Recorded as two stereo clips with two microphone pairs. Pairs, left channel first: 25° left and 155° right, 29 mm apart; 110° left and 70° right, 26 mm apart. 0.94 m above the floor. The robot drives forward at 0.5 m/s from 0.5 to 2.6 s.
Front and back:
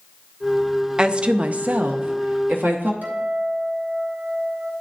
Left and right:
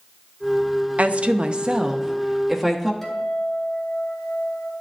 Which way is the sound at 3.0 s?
165° right.